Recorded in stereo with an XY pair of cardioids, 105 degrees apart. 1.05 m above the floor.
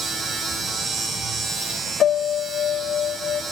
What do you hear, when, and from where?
0.0 s a machine running: 55° right, 6.5 m
2.0 s a piano: 65° left, 1.4 m